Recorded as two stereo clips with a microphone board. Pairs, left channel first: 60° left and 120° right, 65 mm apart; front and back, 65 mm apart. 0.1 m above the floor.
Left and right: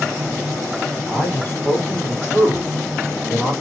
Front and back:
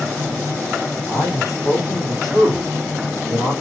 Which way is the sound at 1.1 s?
5° left.